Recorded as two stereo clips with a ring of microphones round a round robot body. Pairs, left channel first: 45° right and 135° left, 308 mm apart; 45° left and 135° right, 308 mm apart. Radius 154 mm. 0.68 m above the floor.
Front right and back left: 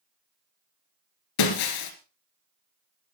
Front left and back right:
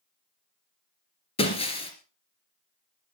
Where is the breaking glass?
30° right, 2.5 m.